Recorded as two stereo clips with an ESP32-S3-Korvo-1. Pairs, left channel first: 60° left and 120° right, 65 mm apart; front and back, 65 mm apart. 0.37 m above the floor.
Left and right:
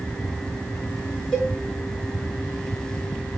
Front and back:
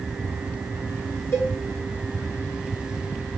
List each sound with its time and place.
1.3 s a cowbell: 10° right, 1.5 m